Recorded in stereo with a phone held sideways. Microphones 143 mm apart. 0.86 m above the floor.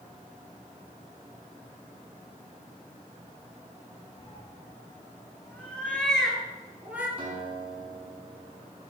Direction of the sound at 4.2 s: 40° left (ahead or behind).